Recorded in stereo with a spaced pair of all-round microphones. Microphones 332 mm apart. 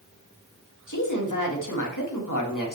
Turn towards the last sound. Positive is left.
turn(degrees=65)  # may be behind; listen again after turning